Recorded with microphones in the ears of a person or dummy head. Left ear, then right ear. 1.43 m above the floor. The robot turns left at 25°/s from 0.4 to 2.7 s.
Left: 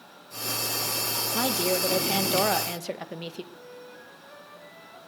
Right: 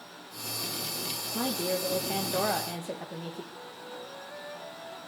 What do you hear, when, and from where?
1.3 s a woman speaking: 105° left, 1.5 m; by 3.4 s 75° left, 1.5 m
3.5 s a flute: 5° right (ahead or behind), 6.5 m